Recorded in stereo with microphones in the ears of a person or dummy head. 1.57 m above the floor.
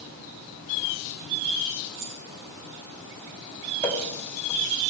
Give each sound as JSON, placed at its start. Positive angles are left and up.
{"t": 1.9, "sound": "keys jangling", "side_deg": -75, "distance_m": 8.5}
{"t": 3.8, "sound": "a running tap", "side_deg": 5, "distance_m": 4.5}